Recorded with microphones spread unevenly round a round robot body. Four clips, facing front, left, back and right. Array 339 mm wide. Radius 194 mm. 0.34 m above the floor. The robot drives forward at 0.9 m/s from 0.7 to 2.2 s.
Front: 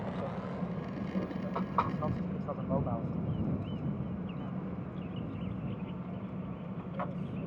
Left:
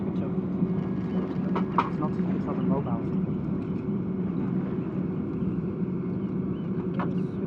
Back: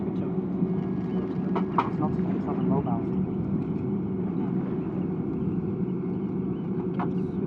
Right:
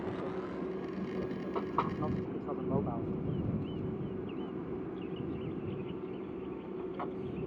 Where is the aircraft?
130° left; by 7.5 s 135° left.